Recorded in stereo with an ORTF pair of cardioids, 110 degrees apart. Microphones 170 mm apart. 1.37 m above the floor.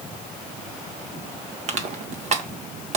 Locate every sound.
1.7 s crushing: 45° right, 1.6 m